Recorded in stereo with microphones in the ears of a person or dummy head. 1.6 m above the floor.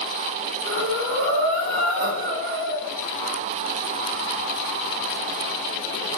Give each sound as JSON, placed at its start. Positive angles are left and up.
{"t": 0.7, "sound": "breathing", "side_deg": -50, "distance_m": 0.7}